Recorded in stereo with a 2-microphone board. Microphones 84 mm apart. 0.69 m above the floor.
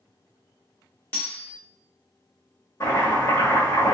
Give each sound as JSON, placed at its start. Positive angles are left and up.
{"t": 1.1, "sound": "cutlery clinking", "side_deg": 20, "distance_m": 1.1}
{"t": 2.8, "sound": "chopping", "side_deg": 40, "distance_m": 1.4}